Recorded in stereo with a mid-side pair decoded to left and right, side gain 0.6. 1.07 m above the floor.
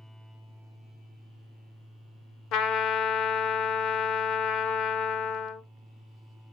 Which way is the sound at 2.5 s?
55° left.